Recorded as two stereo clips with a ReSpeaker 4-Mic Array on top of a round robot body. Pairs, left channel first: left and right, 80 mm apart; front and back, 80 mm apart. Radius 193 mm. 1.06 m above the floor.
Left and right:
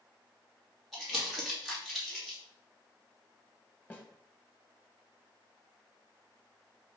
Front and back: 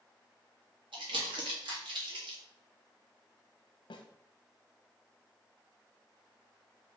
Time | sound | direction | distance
0.9 | crumpling | straight behind | 2 m
3.9 | a snare drum | 20° left | 1.0 m